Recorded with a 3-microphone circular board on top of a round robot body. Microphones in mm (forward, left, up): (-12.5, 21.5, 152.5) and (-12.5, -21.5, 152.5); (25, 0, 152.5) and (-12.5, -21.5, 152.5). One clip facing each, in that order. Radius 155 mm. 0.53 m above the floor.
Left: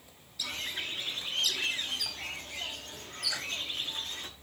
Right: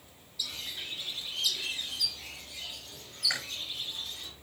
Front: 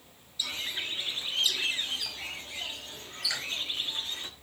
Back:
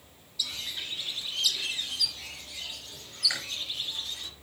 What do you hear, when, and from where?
0.4 s a bird: 75° left, 1.4 m
3.3 s chewing: 80° right, 5 m